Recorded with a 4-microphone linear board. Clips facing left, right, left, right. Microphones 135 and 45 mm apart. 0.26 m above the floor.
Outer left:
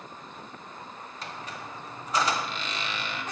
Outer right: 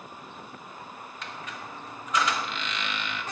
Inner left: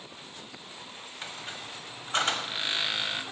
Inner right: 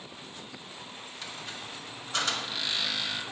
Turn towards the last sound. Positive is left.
turn(degrees=35)  # may be behind; listen again after turning